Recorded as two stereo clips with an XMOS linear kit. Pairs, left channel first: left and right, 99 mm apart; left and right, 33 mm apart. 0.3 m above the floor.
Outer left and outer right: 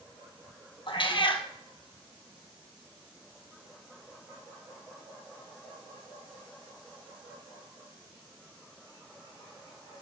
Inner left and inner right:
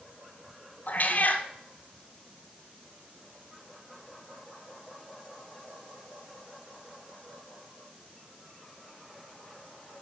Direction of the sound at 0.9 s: 55° left (ahead or behind).